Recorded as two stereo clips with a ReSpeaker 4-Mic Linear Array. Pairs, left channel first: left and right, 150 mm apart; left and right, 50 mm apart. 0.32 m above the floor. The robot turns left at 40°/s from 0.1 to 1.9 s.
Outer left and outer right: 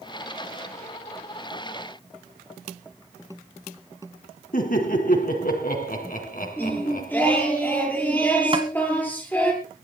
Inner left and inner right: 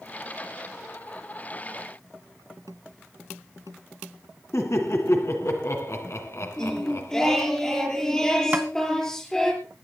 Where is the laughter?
70° left (ahead or behind), 3 m.